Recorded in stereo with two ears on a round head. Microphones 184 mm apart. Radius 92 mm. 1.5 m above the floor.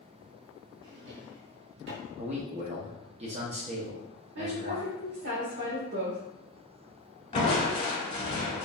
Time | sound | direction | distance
0.8 | a drawer | 65° right (ahead or behind) | 1.3 m
2.2 | a man speaking | 30° right (ahead or behind) | 0.7 m
4.3 | a woman speaking | 70° right (ahead or behind) | 1.0 m
7.3 | crushing | 25° left (ahead or behind) | 1.4 m